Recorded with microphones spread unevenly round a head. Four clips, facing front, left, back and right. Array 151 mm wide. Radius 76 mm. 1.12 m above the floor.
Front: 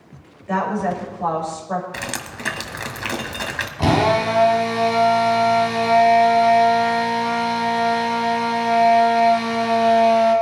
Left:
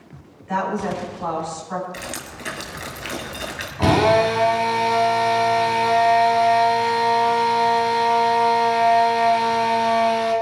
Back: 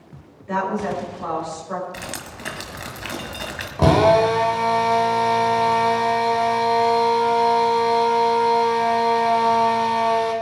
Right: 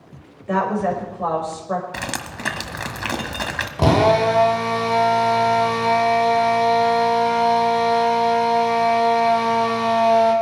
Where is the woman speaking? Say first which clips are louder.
Right 3 dB, front 2 dB; 90° right, 5 m.